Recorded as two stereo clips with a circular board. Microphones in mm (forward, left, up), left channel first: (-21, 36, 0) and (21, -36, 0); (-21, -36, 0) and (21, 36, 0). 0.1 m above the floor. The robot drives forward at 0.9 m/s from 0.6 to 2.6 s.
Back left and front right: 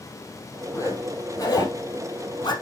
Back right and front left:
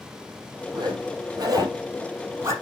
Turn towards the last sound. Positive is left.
turn(degrees=115)